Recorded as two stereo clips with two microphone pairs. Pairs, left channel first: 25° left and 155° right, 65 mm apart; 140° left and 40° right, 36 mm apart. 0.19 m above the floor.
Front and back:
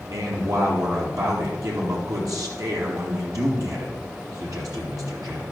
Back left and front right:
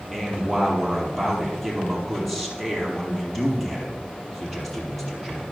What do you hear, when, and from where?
0.1 s a man speaking: 135° right, 5 m